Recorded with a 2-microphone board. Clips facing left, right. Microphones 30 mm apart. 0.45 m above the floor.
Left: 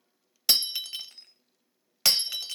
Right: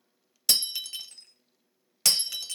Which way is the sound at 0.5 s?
20° left (ahead or behind).